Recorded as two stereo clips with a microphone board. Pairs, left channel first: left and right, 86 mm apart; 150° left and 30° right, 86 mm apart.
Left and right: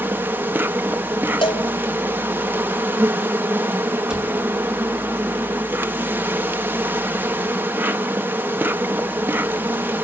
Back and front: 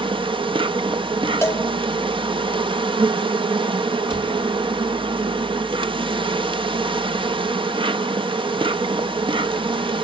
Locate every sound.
0.0 s an insect: 25° right, 1.0 m
1.4 s a cowbell: 90° left, 2.5 m
4.1 s a cupboard door: 10° right, 5 m